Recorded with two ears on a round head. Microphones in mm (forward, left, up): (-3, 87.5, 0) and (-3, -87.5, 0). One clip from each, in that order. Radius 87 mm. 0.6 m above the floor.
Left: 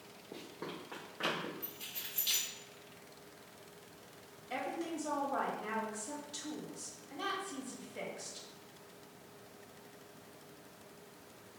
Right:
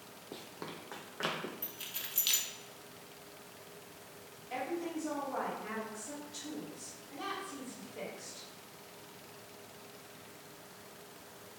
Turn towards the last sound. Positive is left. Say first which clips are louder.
# right 1 dB
turn(degrees=25)  # may be behind; listen again after turning